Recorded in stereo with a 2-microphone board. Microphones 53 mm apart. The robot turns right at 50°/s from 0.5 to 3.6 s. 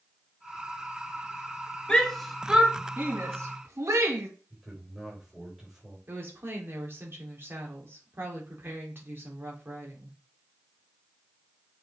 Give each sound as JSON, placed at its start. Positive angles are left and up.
{"t": 1.9, "sound": "a shout", "side_deg": 20, "distance_m": 2.0}
{"t": 4.5, "sound": "a man speaking", "side_deg": -5, "distance_m": 4.5}
{"t": 6.1, "sound": "a woman speaking", "side_deg": -45, "distance_m": 3.5}